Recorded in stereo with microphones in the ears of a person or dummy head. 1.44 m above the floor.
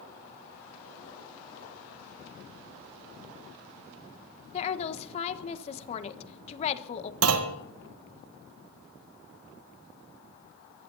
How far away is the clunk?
About 1.6 m.